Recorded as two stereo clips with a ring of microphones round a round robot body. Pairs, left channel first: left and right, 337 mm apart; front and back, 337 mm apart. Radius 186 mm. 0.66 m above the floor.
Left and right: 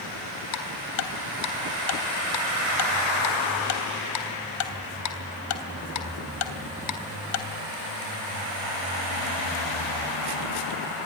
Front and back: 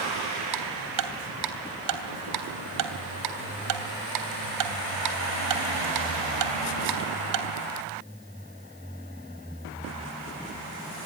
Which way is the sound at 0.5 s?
135° left.